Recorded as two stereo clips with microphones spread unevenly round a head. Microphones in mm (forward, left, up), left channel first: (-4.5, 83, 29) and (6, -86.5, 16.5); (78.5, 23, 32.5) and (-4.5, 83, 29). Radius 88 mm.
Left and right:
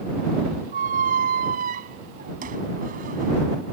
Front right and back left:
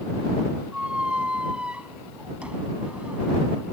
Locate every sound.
0.7 s a squeak: 130° right